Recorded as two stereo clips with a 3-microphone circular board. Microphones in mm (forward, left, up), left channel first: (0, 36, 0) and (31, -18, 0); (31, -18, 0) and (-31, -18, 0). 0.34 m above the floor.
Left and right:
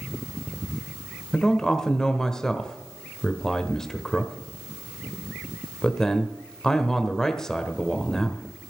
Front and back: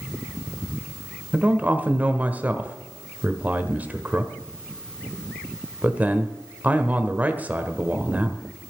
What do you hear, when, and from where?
1.3 s a man speaking: 170° right, 1.3 m